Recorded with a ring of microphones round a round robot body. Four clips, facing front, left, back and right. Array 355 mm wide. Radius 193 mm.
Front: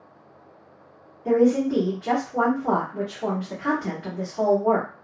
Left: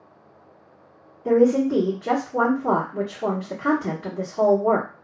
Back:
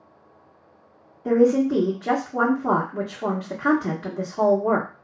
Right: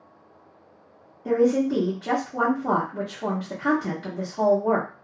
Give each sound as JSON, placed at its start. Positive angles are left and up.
{"t": 1.2, "sound": "a woman speaking", "azimuth_deg": 170, "distance_m": 1.4}